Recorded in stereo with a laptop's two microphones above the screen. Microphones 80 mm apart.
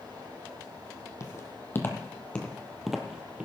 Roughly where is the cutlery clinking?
No cutlery clinking in this recording.